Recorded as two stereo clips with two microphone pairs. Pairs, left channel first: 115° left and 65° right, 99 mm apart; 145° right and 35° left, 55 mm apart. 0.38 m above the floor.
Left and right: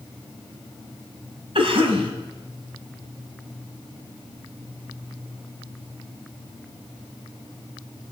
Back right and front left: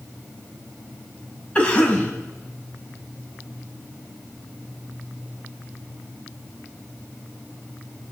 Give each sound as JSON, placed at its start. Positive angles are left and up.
{"t": 1.6, "sound": "a cough", "azimuth_deg": -80, "distance_m": 2.5}